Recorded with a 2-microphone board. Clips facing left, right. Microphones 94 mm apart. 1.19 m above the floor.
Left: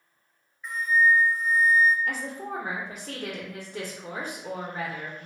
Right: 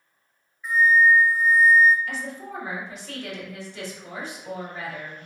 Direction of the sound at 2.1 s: 55° left (ahead or behind).